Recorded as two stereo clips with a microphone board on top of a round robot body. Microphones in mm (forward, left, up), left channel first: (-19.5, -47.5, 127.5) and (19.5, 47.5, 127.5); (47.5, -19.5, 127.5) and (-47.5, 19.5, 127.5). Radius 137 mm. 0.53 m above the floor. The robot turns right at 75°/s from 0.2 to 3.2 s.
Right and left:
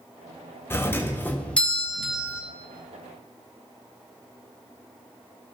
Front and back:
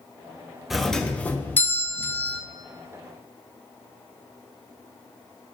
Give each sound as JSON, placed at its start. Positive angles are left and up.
{"t": 0.7, "sound": "a doorbell", "azimuth_deg": -115, "distance_m": 1.2}